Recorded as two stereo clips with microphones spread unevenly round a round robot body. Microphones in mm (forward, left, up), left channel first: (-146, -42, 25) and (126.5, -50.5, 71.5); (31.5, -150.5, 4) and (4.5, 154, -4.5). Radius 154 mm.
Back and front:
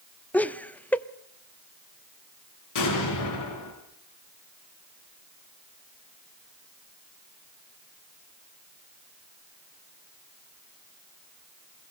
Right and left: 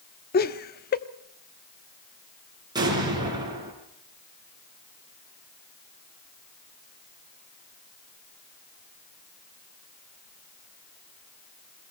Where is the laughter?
120° right, 0.8 m.